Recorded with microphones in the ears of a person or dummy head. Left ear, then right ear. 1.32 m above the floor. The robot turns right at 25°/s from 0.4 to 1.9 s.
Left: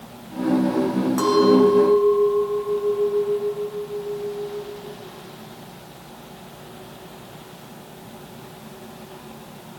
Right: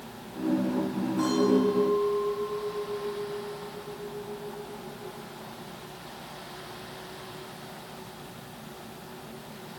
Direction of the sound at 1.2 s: 65° left (ahead or behind).